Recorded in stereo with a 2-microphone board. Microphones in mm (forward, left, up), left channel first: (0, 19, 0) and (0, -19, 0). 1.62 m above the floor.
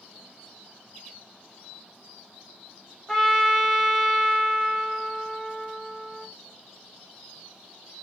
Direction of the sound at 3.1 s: 10° left (ahead or behind).